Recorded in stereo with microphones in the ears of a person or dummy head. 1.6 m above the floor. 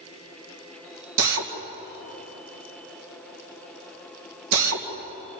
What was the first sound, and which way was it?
A drill, 85° right.